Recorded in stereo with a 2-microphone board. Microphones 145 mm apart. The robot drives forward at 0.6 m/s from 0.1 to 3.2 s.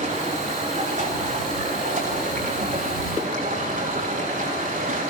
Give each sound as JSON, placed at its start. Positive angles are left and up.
{"t": 0.0, "sound": "running water", "side_deg": -60, "distance_m": 10.0}